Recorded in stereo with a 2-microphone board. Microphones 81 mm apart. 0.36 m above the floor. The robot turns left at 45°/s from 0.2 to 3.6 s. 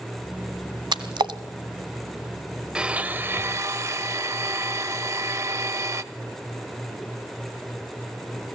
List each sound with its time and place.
0.9 s a splash: 70° right (ahead or behind), 1.2 m; by 1.4 s 75° right (ahead or behind), 1.2 m
2.8 s a blender: 15° right, 0.7 m; by 6.0 s 50° right, 0.7 m